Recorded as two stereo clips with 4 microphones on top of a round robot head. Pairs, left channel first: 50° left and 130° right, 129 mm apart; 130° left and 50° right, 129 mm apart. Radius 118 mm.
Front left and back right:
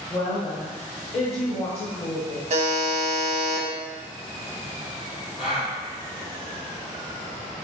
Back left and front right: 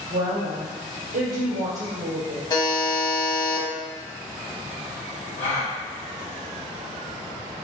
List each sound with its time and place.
0.1 s a woman speaking: 25° right, 0.6 m
2.5 s a buzzer: 170° right, 0.6 m
5.4 s a gasp: 140° left, 1.6 m